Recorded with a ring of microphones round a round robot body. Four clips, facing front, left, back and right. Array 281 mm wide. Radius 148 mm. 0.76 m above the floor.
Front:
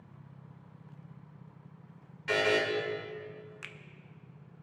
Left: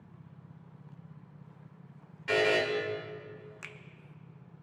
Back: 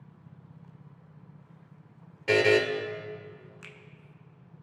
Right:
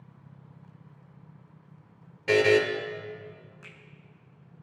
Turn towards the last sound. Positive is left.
turn(degrees=75)